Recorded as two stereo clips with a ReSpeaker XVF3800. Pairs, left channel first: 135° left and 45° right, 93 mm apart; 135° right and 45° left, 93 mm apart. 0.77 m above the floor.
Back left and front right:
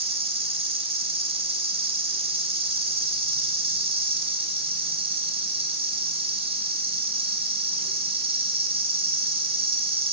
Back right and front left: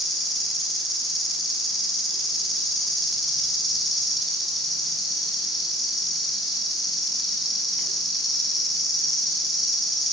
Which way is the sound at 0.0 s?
45° right.